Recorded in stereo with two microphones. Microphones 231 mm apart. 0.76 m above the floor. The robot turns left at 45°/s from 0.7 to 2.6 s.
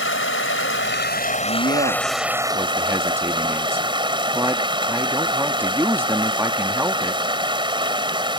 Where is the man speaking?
115° right; by 7.2 s 170° right.